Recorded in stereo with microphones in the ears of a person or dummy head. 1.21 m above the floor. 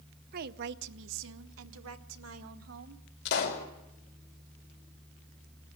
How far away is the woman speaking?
About 0.8 m.